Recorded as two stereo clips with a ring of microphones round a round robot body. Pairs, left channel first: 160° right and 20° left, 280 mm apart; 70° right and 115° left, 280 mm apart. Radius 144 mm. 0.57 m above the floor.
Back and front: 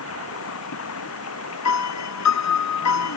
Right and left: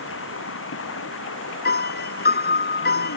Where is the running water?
115° right.